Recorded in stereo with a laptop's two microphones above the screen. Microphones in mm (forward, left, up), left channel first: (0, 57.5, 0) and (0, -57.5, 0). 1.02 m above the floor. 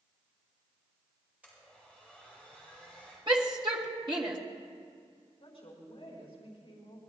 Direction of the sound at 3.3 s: 45° right (ahead or behind).